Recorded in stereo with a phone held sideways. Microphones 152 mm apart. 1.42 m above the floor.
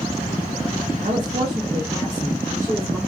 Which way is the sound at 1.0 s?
60° right (ahead or behind).